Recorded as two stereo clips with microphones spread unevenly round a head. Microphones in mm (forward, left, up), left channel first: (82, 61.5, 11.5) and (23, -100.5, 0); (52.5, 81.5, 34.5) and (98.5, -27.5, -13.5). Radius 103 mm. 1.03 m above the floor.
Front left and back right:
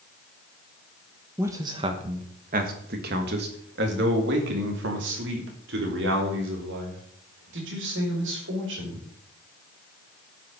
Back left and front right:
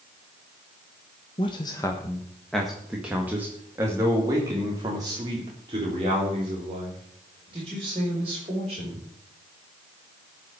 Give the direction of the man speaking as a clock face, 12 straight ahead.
6 o'clock.